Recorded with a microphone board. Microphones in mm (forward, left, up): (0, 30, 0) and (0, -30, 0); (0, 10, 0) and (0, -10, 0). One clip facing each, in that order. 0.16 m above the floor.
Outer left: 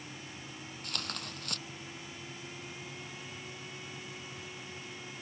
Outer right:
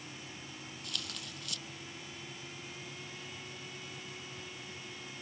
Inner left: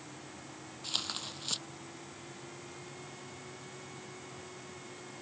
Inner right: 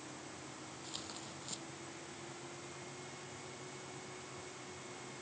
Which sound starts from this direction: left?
Tearing paper, at 0.8 s.